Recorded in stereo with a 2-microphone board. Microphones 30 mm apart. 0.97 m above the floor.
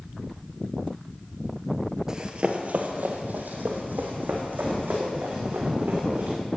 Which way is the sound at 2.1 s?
20° right (ahead or behind).